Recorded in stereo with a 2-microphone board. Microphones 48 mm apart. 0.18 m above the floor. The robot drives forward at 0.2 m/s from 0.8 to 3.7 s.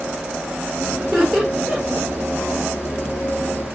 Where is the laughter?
5° left (ahead or behind), 4 m.